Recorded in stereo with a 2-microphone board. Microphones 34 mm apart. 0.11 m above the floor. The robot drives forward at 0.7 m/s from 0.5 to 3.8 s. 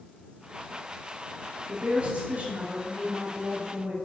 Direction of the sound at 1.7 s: 40° right (ahead or behind).